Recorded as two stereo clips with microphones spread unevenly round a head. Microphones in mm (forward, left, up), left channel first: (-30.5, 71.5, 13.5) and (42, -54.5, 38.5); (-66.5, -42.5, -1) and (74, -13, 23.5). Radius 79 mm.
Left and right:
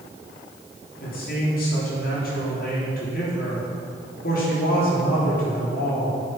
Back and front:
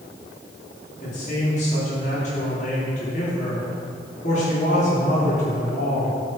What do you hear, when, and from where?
1.0 s a man speaking: 145° left, 4 m